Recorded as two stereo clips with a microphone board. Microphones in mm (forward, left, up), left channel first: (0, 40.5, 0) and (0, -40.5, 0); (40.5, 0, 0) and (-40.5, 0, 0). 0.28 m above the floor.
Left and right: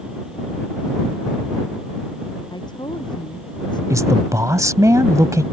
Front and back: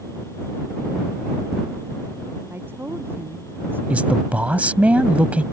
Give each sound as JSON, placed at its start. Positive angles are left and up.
{"t": 2.5, "sound": "a woman speaking", "azimuth_deg": 115}
{"t": 3.9, "sound": "a man speaking", "azimuth_deg": -115}